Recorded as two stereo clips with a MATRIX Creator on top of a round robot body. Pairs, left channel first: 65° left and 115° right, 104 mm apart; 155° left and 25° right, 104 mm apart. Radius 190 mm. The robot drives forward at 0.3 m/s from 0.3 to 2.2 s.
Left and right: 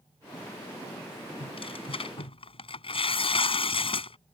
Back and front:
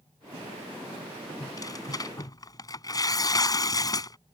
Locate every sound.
1.4 s tearing paper: 100° left